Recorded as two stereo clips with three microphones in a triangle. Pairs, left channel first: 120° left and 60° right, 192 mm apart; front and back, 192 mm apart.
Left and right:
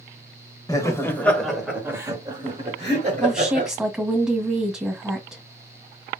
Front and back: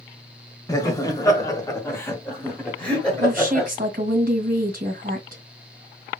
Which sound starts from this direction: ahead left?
Laughter, at 0.7 s.